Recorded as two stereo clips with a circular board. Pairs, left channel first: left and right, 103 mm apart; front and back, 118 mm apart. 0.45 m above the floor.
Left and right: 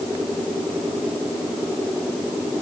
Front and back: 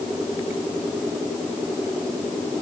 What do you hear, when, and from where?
Only background noise.